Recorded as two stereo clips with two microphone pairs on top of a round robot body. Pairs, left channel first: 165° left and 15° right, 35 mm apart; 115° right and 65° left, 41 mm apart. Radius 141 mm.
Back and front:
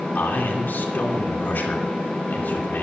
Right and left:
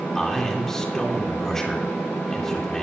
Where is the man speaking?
165° left, 2.5 m.